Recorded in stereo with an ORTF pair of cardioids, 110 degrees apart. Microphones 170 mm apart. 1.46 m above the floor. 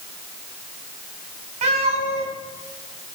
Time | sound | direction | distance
1.6 | a cat meowing | 45° right | 3.5 m